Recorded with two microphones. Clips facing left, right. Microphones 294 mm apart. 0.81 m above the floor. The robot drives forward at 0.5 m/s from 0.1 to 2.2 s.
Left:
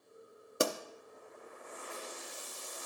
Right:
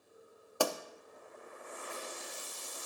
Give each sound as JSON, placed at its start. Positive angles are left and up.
{"t": 0.6, "sound": "a pop", "side_deg": 25, "distance_m": 0.5}